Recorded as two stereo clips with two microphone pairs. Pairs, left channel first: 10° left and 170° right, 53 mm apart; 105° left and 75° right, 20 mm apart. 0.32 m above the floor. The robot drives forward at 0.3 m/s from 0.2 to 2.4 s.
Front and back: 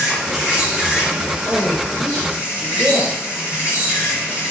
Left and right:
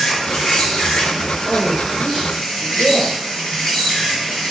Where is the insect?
115° left, 1.5 m; by 4.5 s 135° left, 1.9 m.